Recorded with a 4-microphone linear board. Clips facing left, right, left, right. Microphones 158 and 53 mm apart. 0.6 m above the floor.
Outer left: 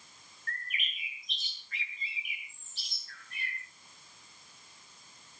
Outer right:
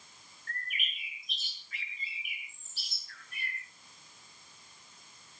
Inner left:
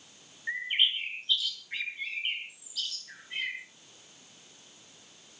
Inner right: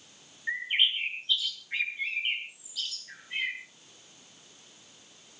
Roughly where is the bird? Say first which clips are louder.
Outer left 1 dB, inner right 1 dB; centre.